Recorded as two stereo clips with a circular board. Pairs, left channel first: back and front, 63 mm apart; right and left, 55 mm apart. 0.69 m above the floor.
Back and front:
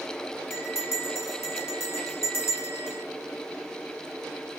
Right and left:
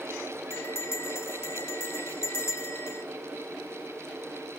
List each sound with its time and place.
0.5 s a bell: 135° right, 0.7 m